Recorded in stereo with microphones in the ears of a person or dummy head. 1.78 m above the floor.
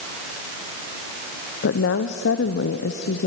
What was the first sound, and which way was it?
A woman speaking, 65° left (ahead or behind).